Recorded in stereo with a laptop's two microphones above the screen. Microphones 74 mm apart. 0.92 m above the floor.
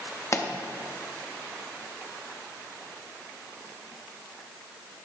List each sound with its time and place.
0.3 s a pop: 40° left (ahead or behind), 0.7 m